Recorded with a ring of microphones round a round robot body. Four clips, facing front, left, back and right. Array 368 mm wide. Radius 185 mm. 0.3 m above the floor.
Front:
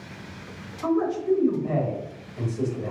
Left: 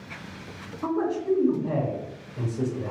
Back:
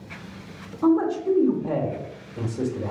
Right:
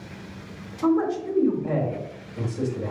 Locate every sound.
0.8 s a man speaking: 160° right, 1.3 m